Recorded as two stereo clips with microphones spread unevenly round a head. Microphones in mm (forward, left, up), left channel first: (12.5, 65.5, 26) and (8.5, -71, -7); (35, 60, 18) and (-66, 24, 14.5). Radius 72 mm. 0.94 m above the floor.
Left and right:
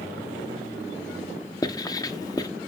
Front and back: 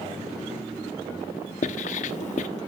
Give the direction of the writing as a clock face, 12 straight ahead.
11 o'clock.